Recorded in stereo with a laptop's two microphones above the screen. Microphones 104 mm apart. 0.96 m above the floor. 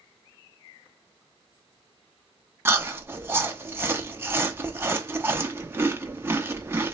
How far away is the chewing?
About 0.8 m.